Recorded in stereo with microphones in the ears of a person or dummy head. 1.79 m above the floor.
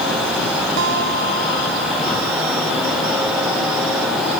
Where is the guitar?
70° right (ahead or behind).